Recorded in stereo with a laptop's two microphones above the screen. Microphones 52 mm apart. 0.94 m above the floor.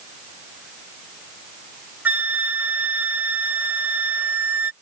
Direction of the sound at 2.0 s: 35° right (ahead or behind).